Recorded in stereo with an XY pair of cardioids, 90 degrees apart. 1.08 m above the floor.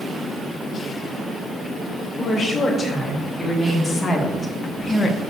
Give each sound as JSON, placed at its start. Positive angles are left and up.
{"t": 2.2, "sound": "a woman speaking", "azimuth_deg": 30, "distance_m": 3.5}